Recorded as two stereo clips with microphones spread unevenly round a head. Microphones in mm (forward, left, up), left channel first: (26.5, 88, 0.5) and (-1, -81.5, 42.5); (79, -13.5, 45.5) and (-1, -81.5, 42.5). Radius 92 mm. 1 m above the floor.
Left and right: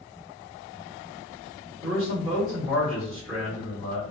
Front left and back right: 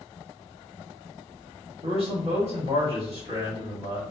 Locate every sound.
1.8 s a man speaking: 115° right, 1.9 m